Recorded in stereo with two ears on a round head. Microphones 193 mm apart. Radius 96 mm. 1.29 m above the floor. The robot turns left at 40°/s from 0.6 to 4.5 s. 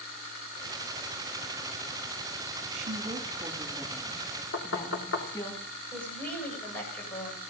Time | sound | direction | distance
2.7 | a woman speaking | 125° right | 3 m
4.5 | knocking | 65° left (ahead or behind) | 3 m
5.9 | a woman speaking | 10° left (ahead or behind) | 6.5 m